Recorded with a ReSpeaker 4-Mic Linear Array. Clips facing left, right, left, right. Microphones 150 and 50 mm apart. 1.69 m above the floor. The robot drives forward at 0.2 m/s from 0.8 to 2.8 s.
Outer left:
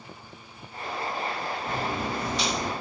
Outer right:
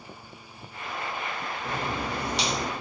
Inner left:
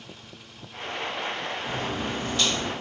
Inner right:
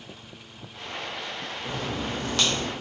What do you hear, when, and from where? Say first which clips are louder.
1.6 s a crack: even, inner right 1 dB; 75° right (ahead or behind), 0.8 m; by 2.7 s 70° right (ahead or behind), 0.8 m